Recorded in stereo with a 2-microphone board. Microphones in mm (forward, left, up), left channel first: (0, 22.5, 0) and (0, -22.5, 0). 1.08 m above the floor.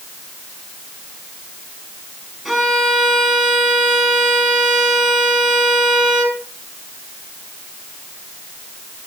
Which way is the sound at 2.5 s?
Centre (ahead or behind).